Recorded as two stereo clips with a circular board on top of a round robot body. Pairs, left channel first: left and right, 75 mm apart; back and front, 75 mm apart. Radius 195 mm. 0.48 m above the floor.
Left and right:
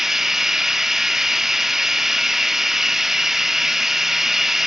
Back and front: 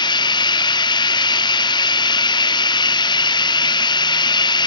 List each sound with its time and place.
0.0 s running water: 175° right, 0.8 m